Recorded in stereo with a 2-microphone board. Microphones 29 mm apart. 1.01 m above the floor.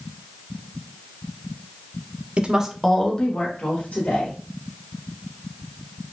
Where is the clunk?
No clunk in this recording.